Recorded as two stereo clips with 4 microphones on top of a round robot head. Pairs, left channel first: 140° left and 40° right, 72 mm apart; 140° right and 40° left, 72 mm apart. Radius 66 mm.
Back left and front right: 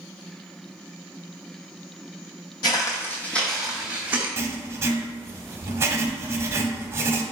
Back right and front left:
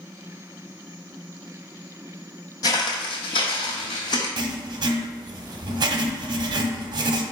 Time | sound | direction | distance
2.6 | footsteps | straight behind | 0.8 m
4.4 | writing | 15° left | 0.6 m